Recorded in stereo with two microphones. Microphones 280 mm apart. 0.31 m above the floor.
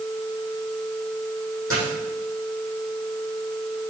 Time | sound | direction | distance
1.7 | a dropped coin | 50° left (ahead or behind) | 5.5 m